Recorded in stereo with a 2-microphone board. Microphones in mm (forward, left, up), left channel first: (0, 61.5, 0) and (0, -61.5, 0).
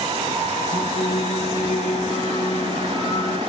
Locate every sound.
0.7 s singing: 80° left, 7 m